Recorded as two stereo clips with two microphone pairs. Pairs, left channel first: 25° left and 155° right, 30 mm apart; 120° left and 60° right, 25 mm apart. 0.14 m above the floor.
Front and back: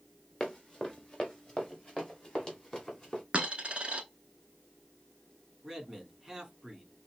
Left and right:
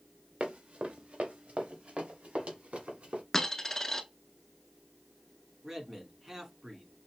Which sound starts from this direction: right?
A man speaking, at 5.6 s.